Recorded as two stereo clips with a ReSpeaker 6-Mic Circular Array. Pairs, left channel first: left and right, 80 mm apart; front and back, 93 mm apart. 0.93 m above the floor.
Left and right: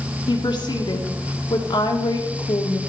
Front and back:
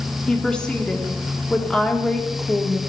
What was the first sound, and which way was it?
A woman speaking, 80° left.